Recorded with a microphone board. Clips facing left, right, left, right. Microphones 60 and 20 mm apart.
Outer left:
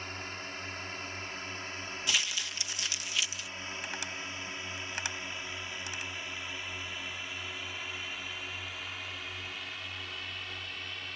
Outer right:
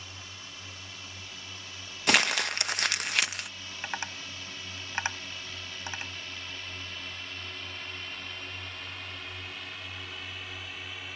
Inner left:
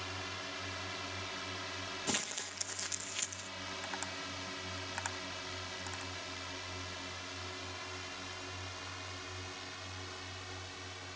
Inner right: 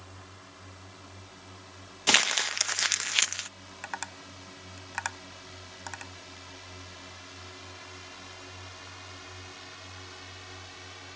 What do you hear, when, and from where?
0.0 s a drone: 45° left (ahead or behind); by 11.2 s 5° right (ahead or behind)
2.1 s crumpling: 60° right (ahead or behind)
3.8 s tapping: 35° right (ahead or behind)